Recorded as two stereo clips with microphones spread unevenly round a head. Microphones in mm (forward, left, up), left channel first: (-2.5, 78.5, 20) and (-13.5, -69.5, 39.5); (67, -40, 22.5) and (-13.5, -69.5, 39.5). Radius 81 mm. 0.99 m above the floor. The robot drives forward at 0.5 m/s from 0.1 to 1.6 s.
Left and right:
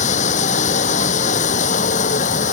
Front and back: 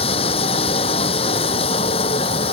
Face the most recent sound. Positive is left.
turn(degrees=40)